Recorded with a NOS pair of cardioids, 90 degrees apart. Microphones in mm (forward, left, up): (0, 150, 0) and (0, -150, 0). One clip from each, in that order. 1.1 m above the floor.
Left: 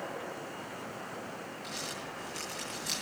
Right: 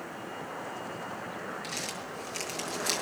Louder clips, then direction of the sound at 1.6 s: Right 3 dB; 50° right.